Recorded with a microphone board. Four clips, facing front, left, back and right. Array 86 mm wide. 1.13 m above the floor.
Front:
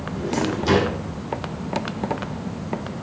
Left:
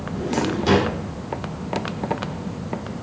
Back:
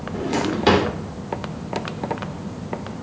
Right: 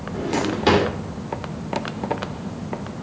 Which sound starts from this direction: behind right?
A drawer, at 0.1 s.